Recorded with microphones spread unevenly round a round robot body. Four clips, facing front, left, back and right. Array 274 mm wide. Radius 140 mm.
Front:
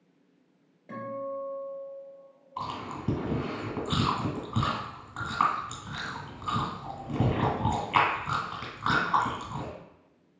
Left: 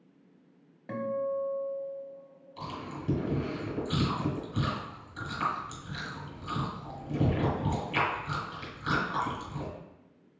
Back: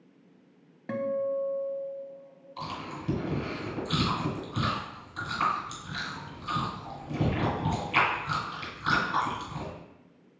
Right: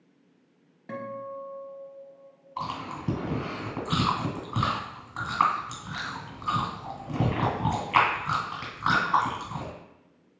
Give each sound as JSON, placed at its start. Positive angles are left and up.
{"t": 0.9, "sound": "a guitar", "azimuth_deg": -175, "distance_m": 0.8}
{"t": 2.6, "sound": "chewing", "azimuth_deg": -55, "distance_m": 2.0}